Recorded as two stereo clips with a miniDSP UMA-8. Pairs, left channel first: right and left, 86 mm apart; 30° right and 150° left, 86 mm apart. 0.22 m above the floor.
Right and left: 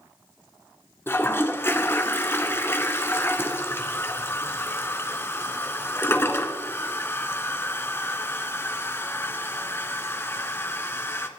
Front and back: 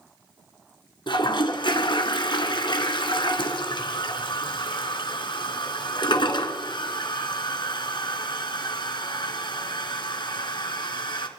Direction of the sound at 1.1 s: 30° right.